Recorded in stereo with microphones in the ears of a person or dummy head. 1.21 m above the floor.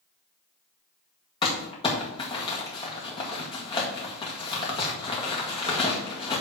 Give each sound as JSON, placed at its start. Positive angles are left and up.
{"t": 1.4, "sound": "crumpling", "side_deg": 25, "distance_m": 1.7}